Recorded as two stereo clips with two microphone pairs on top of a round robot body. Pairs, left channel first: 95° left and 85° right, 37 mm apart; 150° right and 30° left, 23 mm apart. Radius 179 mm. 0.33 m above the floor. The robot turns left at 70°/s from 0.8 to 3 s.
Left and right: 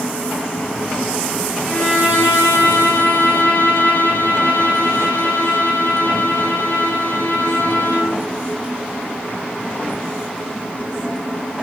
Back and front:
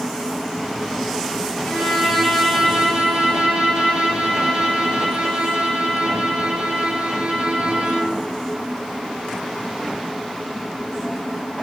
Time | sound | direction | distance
1.7 | a violin | 160° left | 4 m